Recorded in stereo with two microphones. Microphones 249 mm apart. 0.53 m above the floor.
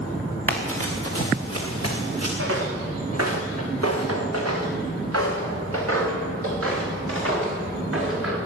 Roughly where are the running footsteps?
Right.